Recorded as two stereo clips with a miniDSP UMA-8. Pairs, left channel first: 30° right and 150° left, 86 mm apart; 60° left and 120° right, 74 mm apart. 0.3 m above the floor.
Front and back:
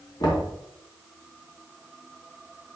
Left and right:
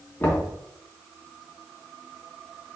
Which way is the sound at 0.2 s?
5° right.